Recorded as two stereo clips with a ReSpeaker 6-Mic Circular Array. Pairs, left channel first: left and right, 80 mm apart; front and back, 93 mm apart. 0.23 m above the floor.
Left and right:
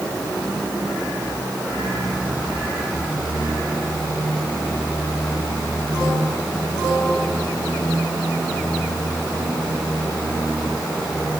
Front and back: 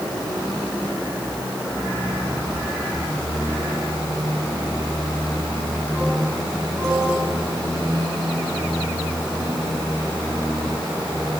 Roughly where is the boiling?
No boiling in this recording.